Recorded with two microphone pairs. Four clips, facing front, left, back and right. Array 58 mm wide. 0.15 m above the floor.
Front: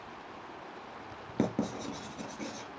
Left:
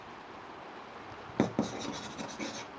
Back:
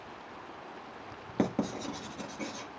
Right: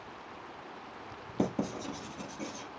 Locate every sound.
1.4 s writing: 105° left, 1.8 m